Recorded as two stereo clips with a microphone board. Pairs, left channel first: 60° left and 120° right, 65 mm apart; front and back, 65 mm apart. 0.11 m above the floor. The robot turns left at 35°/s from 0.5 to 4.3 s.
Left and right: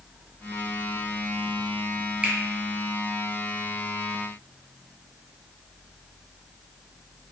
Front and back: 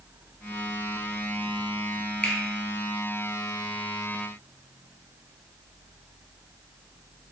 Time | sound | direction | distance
2.2 | a finger snap | 65° right | 1.8 m